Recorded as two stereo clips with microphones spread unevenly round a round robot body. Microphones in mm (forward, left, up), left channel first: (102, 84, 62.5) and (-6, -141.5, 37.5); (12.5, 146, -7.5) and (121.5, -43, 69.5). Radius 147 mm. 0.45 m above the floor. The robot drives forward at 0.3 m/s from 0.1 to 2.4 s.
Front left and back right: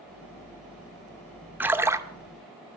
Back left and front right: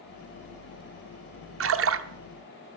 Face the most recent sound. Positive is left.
turn(degrees=-55)